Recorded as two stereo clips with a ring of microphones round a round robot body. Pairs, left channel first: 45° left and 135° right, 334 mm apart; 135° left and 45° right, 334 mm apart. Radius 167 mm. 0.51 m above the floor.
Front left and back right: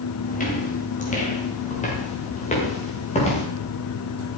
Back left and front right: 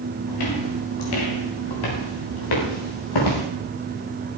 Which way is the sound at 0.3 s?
110° left.